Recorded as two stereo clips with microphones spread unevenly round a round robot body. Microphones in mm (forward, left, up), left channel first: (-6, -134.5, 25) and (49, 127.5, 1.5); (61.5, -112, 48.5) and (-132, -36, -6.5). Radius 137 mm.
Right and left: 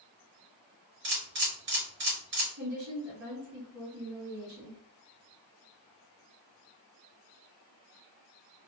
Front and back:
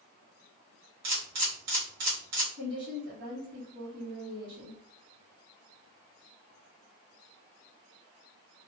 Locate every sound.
1.0 s a camera shutter: 130° left, 1.5 m
2.6 s a woman speaking: 110° left, 1.4 m